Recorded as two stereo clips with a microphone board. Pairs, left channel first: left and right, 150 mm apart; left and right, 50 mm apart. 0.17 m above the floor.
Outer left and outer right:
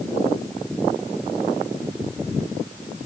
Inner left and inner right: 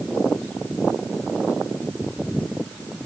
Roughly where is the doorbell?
No doorbell in this recording.